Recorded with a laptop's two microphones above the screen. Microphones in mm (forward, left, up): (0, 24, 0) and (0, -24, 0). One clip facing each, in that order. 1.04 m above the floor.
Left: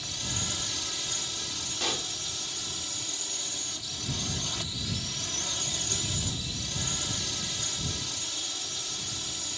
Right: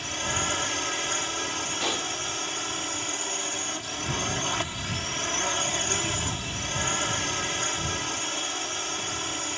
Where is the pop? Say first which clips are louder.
Right 2 dB; 15° right (ahead or behind).